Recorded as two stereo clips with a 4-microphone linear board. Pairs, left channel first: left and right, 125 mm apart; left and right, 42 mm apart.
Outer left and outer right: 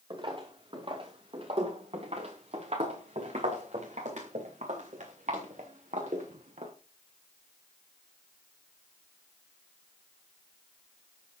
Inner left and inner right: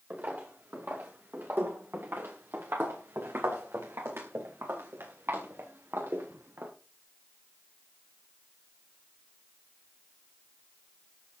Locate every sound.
0.1 s footsteps: 40° right (ahead or behind), 4 m; by 6.7 s 75° right (ahead or behind), 4.5 m